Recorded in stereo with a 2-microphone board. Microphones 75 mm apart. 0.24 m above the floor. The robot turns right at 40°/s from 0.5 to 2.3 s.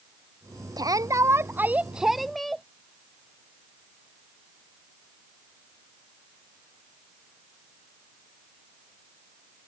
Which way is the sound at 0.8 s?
60° right.